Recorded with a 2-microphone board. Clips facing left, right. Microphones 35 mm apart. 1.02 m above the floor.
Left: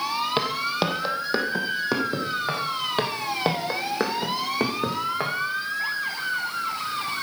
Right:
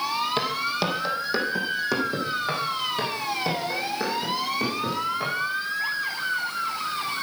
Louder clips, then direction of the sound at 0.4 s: Left 1 dB; 20° left (ahead or behind).